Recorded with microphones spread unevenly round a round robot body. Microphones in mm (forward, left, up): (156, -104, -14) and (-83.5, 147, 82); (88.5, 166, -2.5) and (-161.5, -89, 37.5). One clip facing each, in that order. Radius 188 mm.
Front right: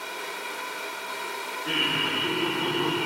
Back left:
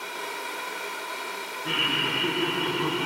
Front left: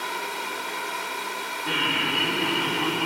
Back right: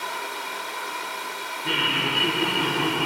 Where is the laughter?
175° left, 1.9 m; by 3.1 s 120° right, 1.5 m.